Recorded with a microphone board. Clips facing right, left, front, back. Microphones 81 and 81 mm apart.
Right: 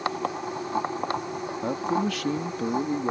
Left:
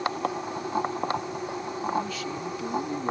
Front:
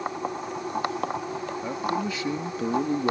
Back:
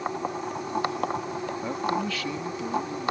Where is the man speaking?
90° right; by 3.1 s 20° right.